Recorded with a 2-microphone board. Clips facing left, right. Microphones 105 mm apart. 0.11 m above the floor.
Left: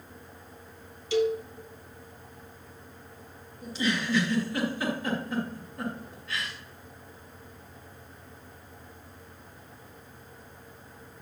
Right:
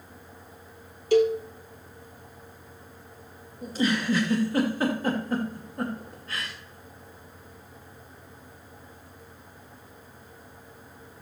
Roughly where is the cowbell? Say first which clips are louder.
Right 5 dB; right.